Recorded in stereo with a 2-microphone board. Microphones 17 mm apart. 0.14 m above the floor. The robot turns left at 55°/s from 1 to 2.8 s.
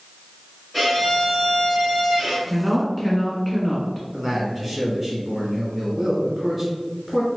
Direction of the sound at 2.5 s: 15° right (ahead or behind).